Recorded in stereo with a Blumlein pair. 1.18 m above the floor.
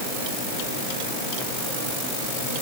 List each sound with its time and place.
Only background noise.